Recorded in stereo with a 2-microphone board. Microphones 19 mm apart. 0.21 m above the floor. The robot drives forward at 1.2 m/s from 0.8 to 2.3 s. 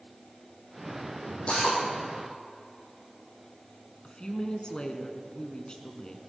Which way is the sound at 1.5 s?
65° left (ahead or behind).